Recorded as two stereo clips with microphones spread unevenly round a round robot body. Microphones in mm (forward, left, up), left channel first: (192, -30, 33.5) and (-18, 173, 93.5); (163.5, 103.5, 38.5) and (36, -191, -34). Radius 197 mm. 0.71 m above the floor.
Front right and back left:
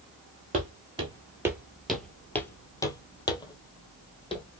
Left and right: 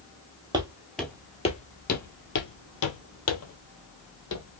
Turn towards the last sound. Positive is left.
turn(degrees=35)